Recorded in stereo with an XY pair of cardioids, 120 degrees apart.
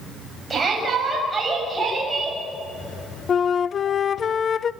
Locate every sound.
0.5 s a shout: 20° right, 7.5 m; by 2.4 s 15° right, 7.5 m
3.3 s a flute: 40° left, 0.6 m